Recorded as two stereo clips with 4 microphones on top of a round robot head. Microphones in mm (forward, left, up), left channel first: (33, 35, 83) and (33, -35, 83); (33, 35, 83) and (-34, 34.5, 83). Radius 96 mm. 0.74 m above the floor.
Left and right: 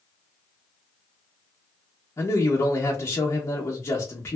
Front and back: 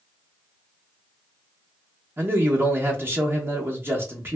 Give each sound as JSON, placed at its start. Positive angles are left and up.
{"t": 2.2, "sound": "a man speaking", "azimuth_deg": 135, "distance_m": 0.9}